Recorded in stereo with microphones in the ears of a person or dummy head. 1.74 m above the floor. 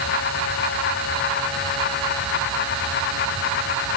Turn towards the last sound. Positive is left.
No sound to turn to.